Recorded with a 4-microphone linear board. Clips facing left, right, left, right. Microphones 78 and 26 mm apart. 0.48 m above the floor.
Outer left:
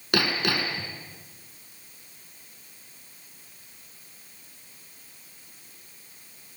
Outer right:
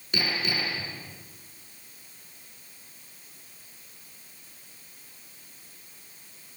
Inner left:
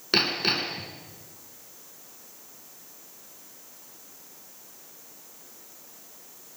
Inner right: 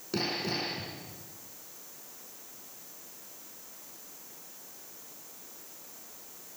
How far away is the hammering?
About 3 m.